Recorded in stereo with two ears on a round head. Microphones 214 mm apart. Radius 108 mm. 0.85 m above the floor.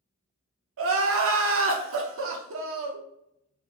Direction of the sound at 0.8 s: 65° right (ahead or behind).